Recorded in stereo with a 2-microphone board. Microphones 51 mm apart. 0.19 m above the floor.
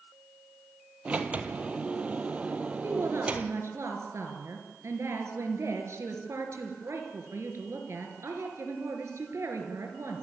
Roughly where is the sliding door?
Right.